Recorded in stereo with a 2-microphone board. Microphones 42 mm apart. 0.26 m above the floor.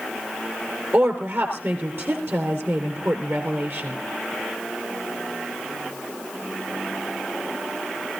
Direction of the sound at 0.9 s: 70° right (ahead or behind).